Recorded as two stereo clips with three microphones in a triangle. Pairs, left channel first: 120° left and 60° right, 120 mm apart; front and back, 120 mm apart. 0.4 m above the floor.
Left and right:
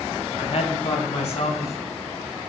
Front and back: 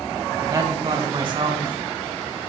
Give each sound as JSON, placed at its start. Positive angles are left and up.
{"t": 0.4, "sound": "a woman speaking", "azimuth_deg": 120, "distance_m": 1.8}